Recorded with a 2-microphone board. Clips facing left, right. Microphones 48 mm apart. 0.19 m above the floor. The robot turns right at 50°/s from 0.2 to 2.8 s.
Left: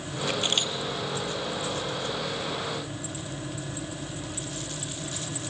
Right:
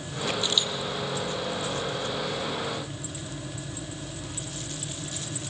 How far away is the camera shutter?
About 1.1 m.